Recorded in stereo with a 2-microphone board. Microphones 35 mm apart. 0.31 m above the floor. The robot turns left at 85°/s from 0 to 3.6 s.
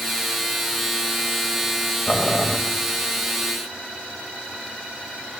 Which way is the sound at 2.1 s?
110° left.